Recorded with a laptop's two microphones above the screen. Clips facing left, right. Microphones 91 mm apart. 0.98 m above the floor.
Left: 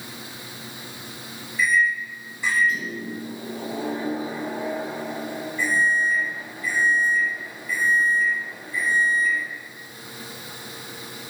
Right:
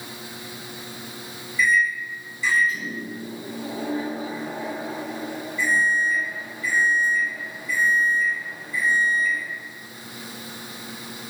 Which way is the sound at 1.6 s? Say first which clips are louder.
Even; 60° left (ahead or behind).